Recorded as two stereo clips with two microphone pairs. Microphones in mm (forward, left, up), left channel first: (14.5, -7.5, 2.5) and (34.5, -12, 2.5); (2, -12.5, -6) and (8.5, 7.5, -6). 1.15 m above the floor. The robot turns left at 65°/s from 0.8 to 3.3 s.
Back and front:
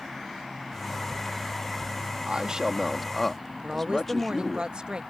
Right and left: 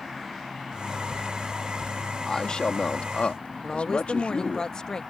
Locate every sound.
2.3 s a man speaking: 45° right; by 4.6 s 110° right
3.6 s a woman speaking: 50° right